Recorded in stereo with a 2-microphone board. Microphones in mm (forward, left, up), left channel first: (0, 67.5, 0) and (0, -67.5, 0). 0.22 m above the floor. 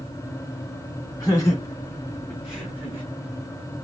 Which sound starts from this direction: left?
Laughter, at 1.2 s.